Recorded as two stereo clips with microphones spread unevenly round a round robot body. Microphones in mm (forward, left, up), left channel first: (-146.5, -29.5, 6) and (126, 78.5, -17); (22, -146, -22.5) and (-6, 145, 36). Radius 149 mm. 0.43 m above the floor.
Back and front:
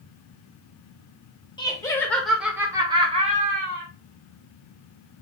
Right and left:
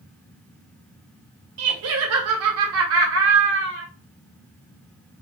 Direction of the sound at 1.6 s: 125° left.